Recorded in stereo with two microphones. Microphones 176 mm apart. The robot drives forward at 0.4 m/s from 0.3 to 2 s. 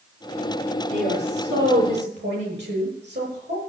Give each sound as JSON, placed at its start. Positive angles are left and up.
{"t": 0.9, "sound": "a woman speaking", "side_deg": -85, "distance_m": 9.5}